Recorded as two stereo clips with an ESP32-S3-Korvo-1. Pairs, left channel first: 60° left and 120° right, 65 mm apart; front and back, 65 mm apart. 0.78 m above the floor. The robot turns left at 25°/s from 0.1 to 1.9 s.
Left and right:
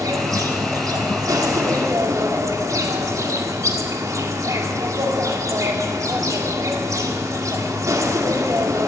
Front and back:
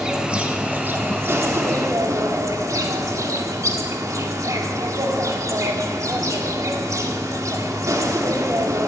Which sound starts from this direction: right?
An insect, at 0.0 s.